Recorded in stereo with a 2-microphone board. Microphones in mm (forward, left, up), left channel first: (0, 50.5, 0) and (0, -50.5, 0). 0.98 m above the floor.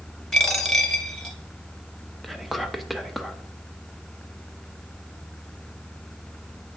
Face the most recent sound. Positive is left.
turn(degrees=0)  # may be behind; listen again after turning